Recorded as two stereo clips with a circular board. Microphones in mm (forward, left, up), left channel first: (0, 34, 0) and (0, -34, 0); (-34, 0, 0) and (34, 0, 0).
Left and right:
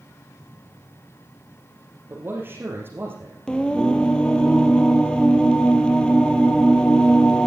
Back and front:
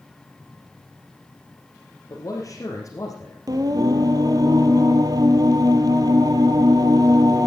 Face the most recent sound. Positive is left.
turn(degrees=15)